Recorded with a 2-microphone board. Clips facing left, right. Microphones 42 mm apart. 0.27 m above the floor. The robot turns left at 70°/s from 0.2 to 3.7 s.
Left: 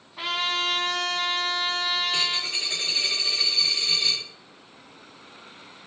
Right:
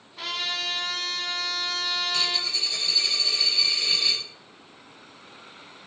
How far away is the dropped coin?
About 7.5 m.